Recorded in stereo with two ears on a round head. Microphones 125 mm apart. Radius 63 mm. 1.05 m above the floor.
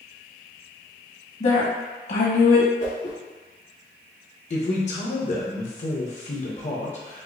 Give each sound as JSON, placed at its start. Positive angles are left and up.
{"t": 1.4, "sound": "a woman speaking", "side_deg": 55, "distance_m": 1.5}
{"t": 2.8, "sound": "a whoosh", "side_deg": 60, "distance_m": 1.8}
{"t": 4.5, "sound": "a man speaking", "side_deg": 55, "distance_m": 1.1}